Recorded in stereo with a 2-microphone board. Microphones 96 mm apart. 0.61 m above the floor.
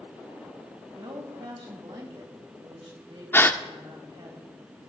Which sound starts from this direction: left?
A gasp, at 3.3 s.